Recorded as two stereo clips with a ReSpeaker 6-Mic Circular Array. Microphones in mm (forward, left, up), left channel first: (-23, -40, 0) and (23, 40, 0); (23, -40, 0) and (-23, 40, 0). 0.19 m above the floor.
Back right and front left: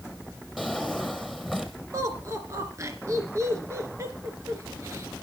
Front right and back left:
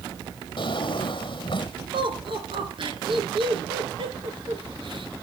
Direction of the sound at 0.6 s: 30° right.